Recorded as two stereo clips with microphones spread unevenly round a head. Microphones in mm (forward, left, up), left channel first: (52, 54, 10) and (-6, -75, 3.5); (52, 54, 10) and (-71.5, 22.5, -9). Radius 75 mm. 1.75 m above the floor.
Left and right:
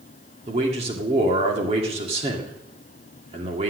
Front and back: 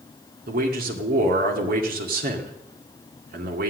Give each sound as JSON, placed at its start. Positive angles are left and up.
{"t": 0.5, "sound": "a man speaking", "azimuth_deg": -170, "distance_m": 2.0}